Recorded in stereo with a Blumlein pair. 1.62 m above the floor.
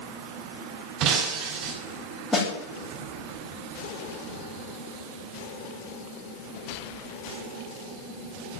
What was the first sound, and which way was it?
Breaking glass, 35° right.